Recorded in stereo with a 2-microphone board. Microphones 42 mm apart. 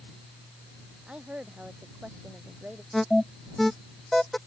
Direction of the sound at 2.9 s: 5° left (ahead or behind).